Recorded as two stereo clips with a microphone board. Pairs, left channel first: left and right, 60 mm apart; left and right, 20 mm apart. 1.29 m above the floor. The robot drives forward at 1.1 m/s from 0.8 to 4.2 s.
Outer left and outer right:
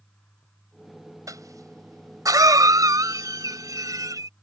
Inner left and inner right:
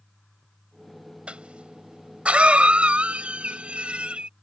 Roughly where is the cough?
Right.